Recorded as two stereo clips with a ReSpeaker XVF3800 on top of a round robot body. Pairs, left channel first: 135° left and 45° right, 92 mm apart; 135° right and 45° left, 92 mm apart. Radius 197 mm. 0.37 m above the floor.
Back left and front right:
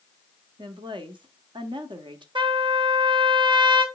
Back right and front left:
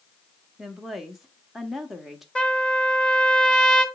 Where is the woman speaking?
40° right, 1.5 m.